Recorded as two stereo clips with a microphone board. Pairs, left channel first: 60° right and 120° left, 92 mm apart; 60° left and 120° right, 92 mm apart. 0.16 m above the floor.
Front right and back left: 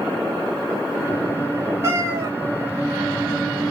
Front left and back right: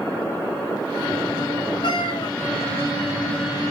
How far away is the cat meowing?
About 1.3 m.